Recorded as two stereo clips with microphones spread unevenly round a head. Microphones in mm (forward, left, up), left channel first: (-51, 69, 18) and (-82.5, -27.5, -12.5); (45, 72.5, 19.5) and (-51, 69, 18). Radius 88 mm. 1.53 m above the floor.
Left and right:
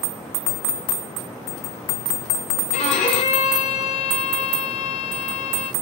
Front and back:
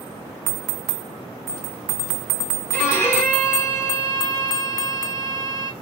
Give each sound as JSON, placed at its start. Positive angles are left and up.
{"t": 2.7, "sound": "a violin", "azimuth_deg": 65, "distance_m": 1.0}